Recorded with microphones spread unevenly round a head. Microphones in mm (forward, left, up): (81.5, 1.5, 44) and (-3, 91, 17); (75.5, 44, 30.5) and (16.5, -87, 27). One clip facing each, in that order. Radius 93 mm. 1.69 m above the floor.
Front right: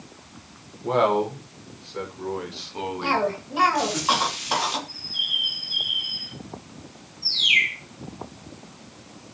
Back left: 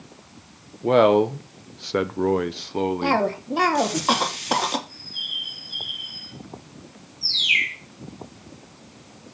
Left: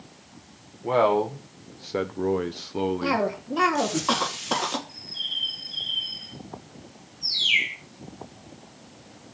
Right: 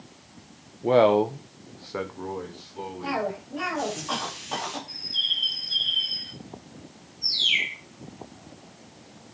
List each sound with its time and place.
0.8 s a man speaking: straight behind, 1.2 m; by 4.0 s 70° left, 1.9 m
3.0 s a cough: 95° left, 2.5 m
4.9 s a bird: 125° right, 1.8 m
7.2 s a bird: 160° left, 7.5 m